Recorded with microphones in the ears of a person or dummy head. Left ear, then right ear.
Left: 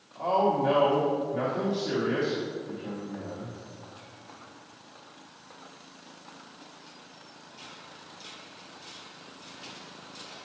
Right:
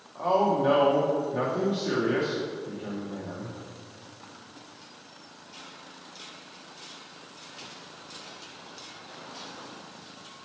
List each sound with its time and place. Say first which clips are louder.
0.1 s a man speaking: right 1 dB; 55° right (ahead or behind), 1.2 m